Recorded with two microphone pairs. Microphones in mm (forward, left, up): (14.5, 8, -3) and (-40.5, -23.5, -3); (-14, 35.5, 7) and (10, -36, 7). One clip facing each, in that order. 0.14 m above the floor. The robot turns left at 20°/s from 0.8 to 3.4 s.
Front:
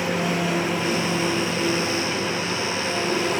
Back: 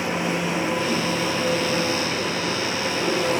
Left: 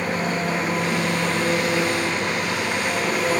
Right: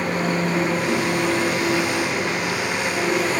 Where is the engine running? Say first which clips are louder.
Front 1 dB, right 2 dB; 90° right, 3.5 m; by 3.4 s 140° right, 3.5 m.